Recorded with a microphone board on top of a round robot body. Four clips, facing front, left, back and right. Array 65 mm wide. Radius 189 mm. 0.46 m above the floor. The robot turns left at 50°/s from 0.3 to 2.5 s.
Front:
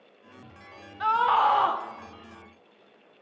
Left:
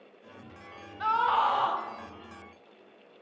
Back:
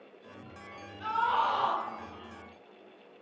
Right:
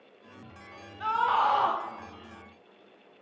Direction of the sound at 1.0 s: 20° left.